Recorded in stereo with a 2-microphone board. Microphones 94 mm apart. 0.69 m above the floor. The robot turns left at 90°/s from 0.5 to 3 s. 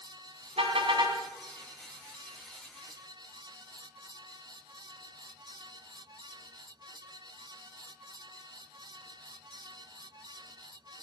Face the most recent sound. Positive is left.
turn(degrees=50)